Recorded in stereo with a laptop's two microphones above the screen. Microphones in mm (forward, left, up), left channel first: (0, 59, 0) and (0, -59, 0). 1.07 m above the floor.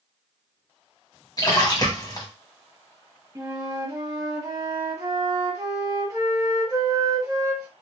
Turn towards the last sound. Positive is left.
turn(degrees=-30)  # may be behind; listen again after turning